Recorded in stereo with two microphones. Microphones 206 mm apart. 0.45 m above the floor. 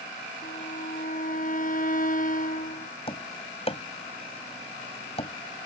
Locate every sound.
0.4 s a violin: 40° left (ahead or behind)
3.1 s tapping: 30° left (ahead or behind)